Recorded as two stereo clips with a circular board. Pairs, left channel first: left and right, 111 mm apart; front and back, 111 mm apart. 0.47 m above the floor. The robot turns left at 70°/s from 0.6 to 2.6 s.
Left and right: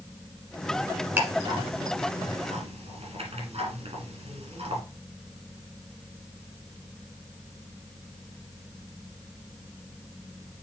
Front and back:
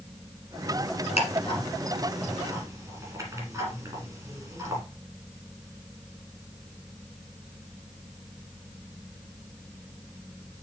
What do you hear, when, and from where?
1.2 s ticking: 15° right, 3 m; by 4.8 s 115° right, 3 m